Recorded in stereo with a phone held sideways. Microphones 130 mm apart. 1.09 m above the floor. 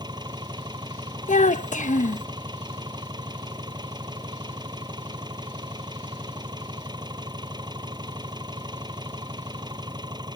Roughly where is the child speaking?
Left.